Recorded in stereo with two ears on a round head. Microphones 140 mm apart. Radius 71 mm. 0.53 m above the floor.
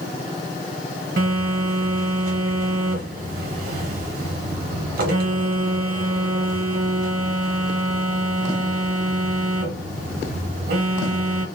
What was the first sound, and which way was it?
A phone buzzing, 60° right (ahead or behind).